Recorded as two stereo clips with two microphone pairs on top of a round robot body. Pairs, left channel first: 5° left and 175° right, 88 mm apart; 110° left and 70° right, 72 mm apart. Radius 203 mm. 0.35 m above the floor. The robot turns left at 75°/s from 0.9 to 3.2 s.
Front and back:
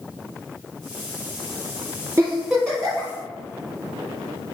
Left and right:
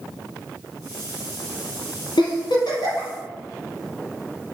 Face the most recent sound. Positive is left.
turn(degrees=45)